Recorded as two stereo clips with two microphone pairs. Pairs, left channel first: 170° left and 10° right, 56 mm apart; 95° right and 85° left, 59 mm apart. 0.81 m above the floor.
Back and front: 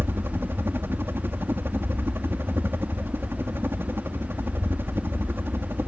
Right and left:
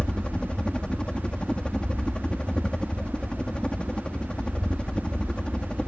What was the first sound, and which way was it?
A helicopter, 30° right.